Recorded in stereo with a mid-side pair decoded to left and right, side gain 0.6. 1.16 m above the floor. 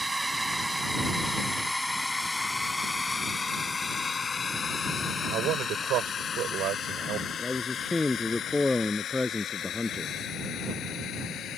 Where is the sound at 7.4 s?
15° left.